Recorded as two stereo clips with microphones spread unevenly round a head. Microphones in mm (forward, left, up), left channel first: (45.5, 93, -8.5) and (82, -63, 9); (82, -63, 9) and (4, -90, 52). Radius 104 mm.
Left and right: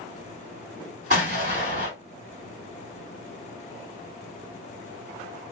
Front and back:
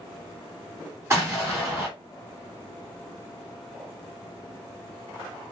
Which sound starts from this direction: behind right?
An explosion, at 1.1 s.